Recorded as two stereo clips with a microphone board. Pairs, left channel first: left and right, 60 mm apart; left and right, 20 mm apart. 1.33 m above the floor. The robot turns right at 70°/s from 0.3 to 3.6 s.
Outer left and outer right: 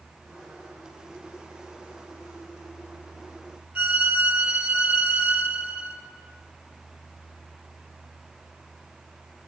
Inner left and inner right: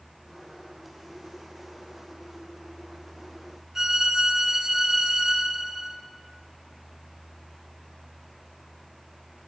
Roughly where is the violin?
Right.